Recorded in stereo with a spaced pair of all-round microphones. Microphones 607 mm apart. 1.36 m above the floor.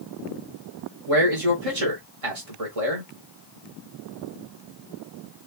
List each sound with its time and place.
1.1 s a man speaking: 65° right (ahead or behind), 1.0 m